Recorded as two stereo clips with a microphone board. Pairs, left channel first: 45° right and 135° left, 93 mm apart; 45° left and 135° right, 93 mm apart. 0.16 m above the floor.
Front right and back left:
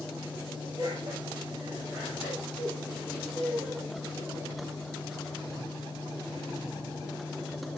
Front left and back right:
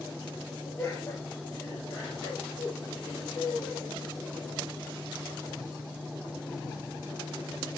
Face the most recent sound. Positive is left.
turn(degrees=50)